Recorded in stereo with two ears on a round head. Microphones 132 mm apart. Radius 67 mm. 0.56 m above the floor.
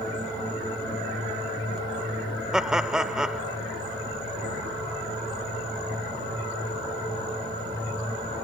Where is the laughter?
5° right (ahead or behind).